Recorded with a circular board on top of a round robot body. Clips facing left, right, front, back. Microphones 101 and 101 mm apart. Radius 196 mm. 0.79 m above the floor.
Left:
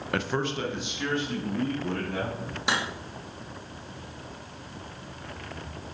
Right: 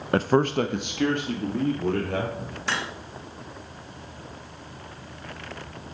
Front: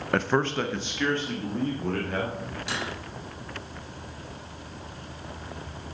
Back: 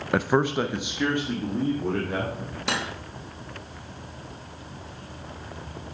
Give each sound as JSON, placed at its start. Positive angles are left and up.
{"t": 0.1, "sound": "a man speaking", "azimuth_deg": -100, "distance_m": 0.6}
{"t": 2.7, "sound": "cutlery clinking", "azimuth_deg": 165, "distance_m": 1.0}